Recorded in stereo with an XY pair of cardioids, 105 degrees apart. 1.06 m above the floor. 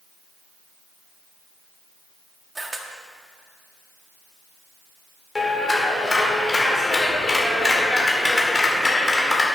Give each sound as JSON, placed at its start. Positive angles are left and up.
{"t": 2.5, "sound": "a camera shutter", "azimuth_deg": -15, "distance_m": 1.6}
{"t": 5.3, "sound": "a clap", "azimuth_deg": 20, "distance_m": 3.5}